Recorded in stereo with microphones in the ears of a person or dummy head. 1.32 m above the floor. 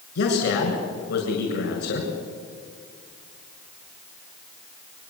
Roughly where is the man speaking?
Left.